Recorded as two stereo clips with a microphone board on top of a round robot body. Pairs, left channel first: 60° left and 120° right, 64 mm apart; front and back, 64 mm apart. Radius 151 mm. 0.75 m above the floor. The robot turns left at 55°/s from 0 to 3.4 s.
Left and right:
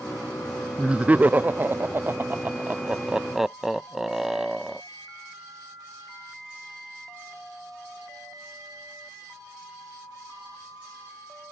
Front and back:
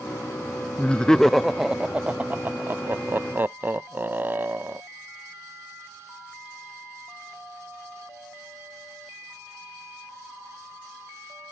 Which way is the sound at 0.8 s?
55° right.